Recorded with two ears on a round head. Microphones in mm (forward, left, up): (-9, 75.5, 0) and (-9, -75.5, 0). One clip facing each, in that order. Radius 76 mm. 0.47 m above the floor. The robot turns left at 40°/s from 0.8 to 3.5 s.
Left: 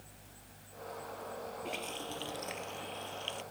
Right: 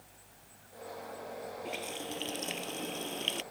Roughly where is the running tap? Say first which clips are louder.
Right 1 dB; ahead.